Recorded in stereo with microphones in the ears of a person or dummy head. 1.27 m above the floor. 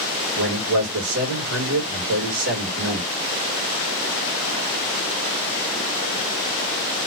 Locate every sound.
0.3 s a man speaking: 80° right, 1.6 m